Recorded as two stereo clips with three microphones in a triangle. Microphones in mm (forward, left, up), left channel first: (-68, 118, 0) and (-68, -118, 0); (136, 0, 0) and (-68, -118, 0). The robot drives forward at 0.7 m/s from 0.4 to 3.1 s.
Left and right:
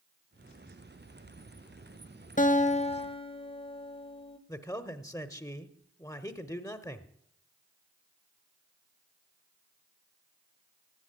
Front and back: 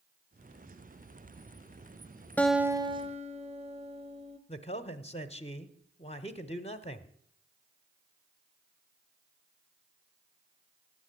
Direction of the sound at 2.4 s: 105° left.